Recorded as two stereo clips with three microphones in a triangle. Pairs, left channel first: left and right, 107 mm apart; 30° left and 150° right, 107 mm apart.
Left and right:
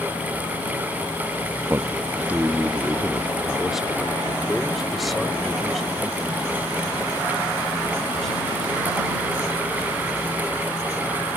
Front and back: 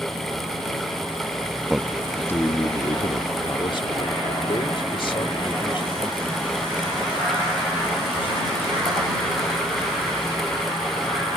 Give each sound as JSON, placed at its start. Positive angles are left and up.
{"t": 1.7, "sound": "a man speaking", "azimuth_deg": -80}